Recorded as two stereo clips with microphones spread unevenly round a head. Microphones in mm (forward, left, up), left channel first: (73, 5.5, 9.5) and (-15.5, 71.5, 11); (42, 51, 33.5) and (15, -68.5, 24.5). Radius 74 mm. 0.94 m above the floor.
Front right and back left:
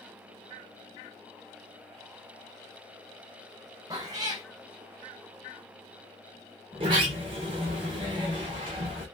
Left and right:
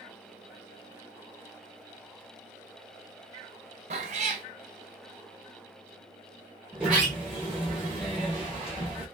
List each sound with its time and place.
3.9 s a cat meowing: 150° right, 0.5 m
6.7 s a sliding door: 175° left, 0.7 m